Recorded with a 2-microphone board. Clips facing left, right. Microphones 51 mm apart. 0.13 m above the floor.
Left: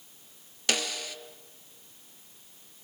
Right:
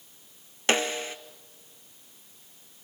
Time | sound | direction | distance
0.7 | a snare drum | 30° right (ahead or behind) | 0.7 m